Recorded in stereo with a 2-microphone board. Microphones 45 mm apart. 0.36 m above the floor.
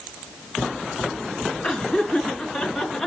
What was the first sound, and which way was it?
Laughter, 20° left (ahead or behind).